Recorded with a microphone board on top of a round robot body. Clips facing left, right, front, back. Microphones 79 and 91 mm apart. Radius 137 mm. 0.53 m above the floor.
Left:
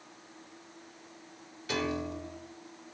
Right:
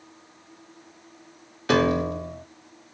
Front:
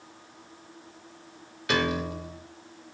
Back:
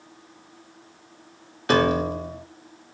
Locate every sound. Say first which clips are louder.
1.7 s a piano: right 12 dB, back 7 dB; 130° right, 0.6 m